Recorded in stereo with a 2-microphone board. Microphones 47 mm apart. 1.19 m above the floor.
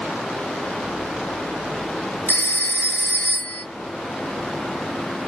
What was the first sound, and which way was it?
A phone ringing, 50° left (ahead or behind).